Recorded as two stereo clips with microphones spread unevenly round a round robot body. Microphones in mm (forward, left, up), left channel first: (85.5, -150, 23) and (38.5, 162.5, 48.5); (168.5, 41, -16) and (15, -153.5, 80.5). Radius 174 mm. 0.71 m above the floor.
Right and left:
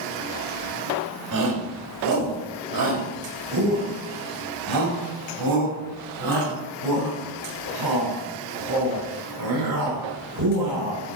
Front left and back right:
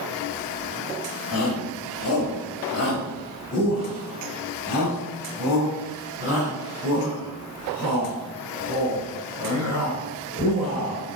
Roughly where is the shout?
Left.